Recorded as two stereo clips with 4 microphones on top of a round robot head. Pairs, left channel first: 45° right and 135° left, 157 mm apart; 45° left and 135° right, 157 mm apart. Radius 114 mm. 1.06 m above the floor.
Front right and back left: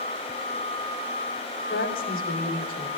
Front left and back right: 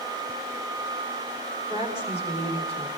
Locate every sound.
1.7 s a woman speaking: 10° right, 3 m